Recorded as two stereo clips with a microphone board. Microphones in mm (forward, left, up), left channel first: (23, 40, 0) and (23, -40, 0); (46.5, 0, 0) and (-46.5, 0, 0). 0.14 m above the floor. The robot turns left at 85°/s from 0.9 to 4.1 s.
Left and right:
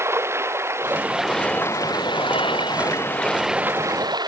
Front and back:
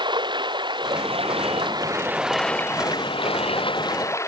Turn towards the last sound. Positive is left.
turn(degrees=-60)